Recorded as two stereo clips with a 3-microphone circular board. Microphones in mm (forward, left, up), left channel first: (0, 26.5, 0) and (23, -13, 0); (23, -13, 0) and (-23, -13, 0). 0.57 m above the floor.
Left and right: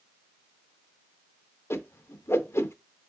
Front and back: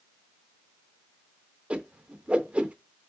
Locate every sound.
1.7 s a whoosh: 120° left, 0.5 m